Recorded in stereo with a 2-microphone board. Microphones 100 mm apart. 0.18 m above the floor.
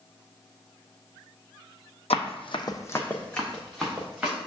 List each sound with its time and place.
2.1 s running footsteps: 75° left (ahead or behind), 0.6 m; by 4.4 s 5° right (ahead or behind), 1.8 m